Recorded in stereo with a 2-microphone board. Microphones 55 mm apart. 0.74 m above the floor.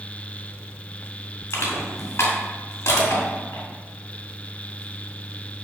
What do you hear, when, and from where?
1.5 s crushing: 55° left (ahead or behind), 2.5 m